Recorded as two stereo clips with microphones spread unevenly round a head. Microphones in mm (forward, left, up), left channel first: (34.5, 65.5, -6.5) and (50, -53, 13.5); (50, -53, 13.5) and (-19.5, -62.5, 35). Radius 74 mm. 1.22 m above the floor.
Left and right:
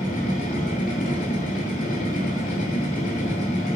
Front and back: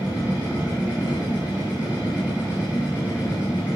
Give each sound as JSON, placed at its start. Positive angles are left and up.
{"t": 0.0, "sound": "a machine running", "azimuth_deg": 100, "distance_m": 2.5}